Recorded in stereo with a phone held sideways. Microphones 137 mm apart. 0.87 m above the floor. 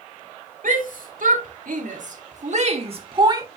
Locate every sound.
0.6 s a shout: 75° right (ahead or behind), 3.5 m; by 3.5 s 25° right (ahead or behind), 1.6 m